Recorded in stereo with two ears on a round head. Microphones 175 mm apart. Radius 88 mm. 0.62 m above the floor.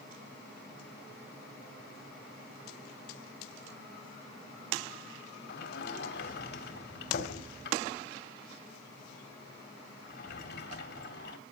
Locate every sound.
5.5 s a sliding door: 60° left (ahead or behind), 3 m